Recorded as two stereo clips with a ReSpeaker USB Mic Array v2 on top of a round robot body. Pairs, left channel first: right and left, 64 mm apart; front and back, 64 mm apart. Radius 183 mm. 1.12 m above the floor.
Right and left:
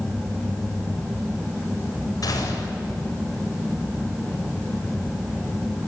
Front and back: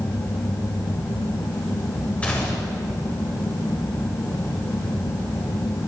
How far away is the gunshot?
About 7.5 m.